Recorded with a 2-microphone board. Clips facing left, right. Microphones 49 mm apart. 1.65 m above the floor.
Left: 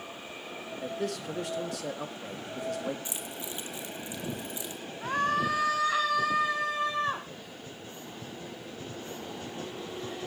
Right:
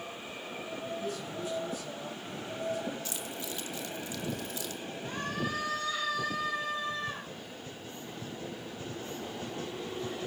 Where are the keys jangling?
20° left (ahead or behind), 2.5 m.